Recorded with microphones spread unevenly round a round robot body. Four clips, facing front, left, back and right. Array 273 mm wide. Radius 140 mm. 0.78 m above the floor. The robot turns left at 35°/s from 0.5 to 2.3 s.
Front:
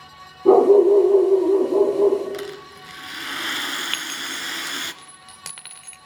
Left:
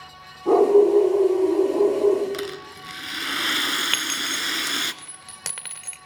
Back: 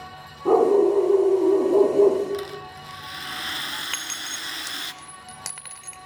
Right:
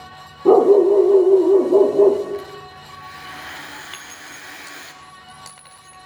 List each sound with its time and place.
0.5 s a dog barking: 60° right, 7 m; by 2.2 s 120° right, 7 m
2.3 s a rattle: 70° left, 1.8 m
3.9 s a clink: 90° left, 2 m